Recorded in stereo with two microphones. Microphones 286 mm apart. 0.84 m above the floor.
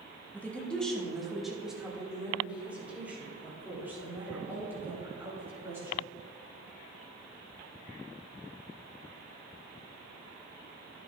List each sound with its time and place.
0.3 s a woman speaking: 5° left (ahead or behind), 1.6 m; by 6.0 s 10° right (ahead or behind), 6.5 m